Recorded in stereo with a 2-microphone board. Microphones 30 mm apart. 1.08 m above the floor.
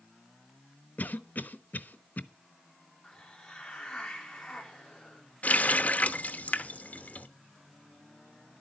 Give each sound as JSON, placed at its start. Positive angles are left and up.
{"t": 1.0, "sound": "a cough", "side_deg": 70, "distance_m": 0.8}
{"t": 3.0, "sound": "a hiss", "side_deg": 20, "distance_m": 3.0}
{"t": 5.4, "sound": "a running tap", "side_deg": 55, "distance_m": 0.8}